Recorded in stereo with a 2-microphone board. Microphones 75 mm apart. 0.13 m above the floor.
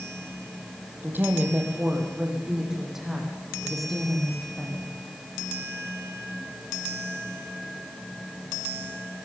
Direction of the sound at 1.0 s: 25° right (ahead or behind).